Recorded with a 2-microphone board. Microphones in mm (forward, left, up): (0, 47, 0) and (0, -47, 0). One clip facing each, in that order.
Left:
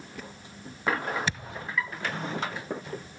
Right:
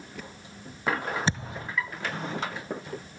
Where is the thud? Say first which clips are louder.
Right 3 dB; 30° right (ahead or behind).